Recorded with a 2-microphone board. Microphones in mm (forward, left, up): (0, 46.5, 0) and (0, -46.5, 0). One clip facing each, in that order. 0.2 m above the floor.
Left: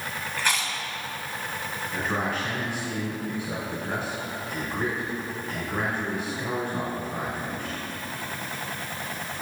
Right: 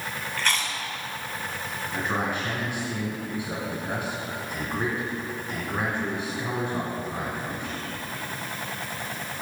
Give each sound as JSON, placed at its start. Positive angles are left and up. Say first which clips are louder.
{"t": 0.4, "sound": "chewing", "louder": "even", "side_deg": 10, "distance_m": 1.1}
{"t": 1.9, "sound": "a man speaking", "louder": "even", "side_deg": -15, "distance_m": 2.5}